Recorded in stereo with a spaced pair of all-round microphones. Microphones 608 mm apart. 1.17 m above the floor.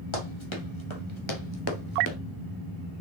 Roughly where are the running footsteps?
Left.